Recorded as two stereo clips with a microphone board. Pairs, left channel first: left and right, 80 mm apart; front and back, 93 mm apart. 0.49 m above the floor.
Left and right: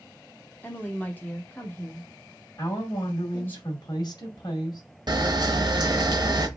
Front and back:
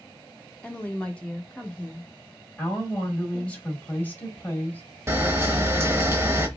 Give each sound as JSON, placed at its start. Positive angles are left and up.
{"t": 0.6, "sound": "a woman speaking", "azimuth_deg": 60, "distance_m": 1.1}
{"t": 2.6, "sound": "a woman speaking", "azimuth_deg": 70, "distance_m": 1.9}
{"t": 5.1, "sound": "a camera shutter", "azimuth_deg": -120, "distance_m": 0.9}